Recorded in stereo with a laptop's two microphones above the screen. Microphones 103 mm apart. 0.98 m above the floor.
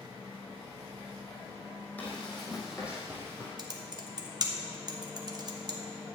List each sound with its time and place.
2.0 s running footsteps: 15° left (ahead or behind), 2.5 m; by 3.5 s 30° right (ahead or behind), 2 m
3.6 s typing on a keyboard: 40° right (ahead or behind), 1.1 m